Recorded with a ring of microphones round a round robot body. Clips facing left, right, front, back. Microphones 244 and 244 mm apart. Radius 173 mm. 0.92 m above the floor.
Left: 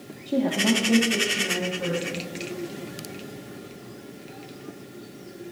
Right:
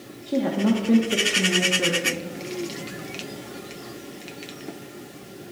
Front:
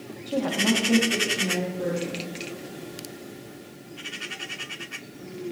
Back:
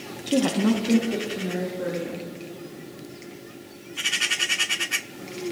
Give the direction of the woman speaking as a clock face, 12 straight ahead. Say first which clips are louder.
Right 1 dB, back 4 dB; 6 o'clock.